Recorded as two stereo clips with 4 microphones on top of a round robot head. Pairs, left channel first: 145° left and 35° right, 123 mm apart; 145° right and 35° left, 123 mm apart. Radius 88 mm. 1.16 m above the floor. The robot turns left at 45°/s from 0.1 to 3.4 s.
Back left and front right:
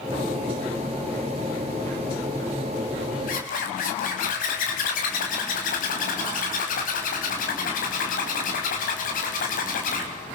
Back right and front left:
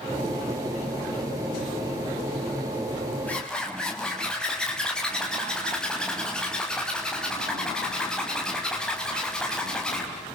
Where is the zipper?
135° left, 4 m; by 10.1 s 130° left, 4 m.